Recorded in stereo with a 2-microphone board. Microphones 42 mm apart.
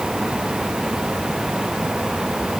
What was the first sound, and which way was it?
Only background noise.